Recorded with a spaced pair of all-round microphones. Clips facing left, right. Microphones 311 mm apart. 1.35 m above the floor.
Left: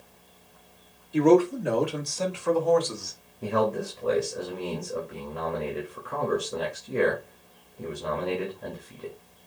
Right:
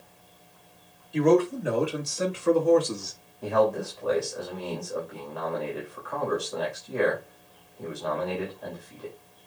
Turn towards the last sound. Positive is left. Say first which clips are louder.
# right 2 dB
turn(degrees=30)  # may be behind; listen again after turning